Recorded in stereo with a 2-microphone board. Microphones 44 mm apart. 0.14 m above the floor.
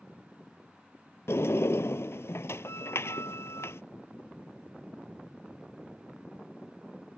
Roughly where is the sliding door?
Left.